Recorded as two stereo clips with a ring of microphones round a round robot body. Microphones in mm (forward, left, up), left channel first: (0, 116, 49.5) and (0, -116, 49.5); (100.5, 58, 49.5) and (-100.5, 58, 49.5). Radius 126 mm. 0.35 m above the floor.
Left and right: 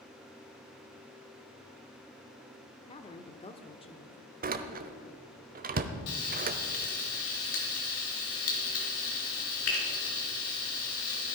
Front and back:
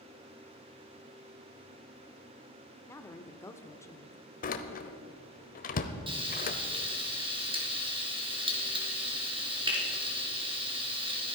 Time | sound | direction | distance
2.9 | a woman speaking | 60° left | 0.9 m
4.4 | a door slam | 45° right | 1.0 m
6.1 | frying | 115° left | 3.5 m